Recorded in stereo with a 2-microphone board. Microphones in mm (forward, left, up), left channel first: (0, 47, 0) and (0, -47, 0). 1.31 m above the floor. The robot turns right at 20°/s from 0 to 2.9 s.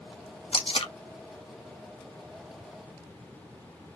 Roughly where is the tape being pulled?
Left.